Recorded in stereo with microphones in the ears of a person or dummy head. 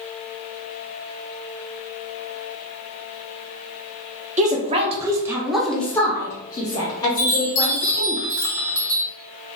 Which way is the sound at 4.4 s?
30° right (ahead or behind).